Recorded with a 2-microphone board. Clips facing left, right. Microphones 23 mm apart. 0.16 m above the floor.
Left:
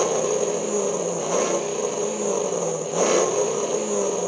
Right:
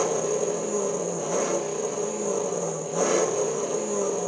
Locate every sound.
0.0 s an engine running: 35° left (ahead or behind), 0.9 m